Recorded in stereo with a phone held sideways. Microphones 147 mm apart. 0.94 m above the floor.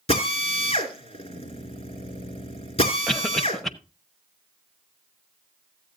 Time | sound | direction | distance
0.1 | a drill | 45° left (ahead or behind) | 3 m
3.1 | a cough | 5° left (ahead or behind) | 1.0 m